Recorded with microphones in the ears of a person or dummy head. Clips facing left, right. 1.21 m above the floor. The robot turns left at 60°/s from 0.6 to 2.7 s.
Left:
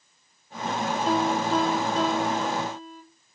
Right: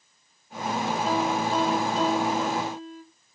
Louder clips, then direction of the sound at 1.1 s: Left 3 dB; 150° left.